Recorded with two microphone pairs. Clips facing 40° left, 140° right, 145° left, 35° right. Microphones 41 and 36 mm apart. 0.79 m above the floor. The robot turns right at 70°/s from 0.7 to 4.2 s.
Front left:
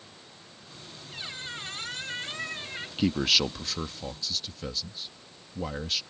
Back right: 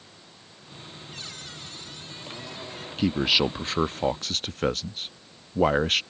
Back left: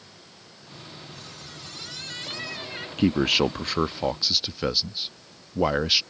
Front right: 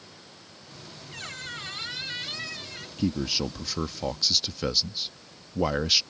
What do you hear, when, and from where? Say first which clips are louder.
1.1 s a squeak: front left 5 dB, front right 5 dB; 35° right; by 2.9 s 90° left
3.0 s a man speaking: back right 3 dB, back left 7 dB; 130° left; by 6.0 s 145° right